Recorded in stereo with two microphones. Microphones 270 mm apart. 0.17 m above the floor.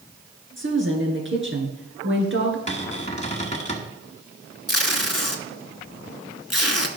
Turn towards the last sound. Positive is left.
turn(degrees=60)  # may be behind; listen again after turning